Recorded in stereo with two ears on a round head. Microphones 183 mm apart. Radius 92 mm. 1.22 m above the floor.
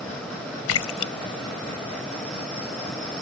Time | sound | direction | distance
0.7 | a splash | 85° left | ?